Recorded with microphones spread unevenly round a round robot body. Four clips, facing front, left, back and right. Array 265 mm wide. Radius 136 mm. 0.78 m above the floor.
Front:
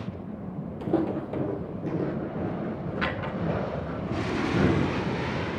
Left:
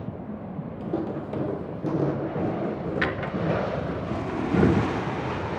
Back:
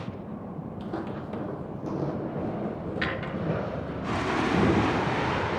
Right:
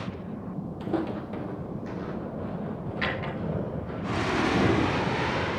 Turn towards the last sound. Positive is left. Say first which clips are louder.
# left 1 dB, front 2 dB
turn(degrees=100)